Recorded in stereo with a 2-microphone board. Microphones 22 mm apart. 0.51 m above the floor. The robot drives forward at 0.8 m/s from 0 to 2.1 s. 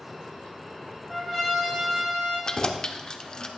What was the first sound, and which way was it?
A trumpet, 15° right (ahead or behind).